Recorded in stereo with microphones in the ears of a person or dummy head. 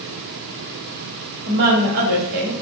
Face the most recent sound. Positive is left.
turn(degrees=-50)  # may be behind; listen again after turning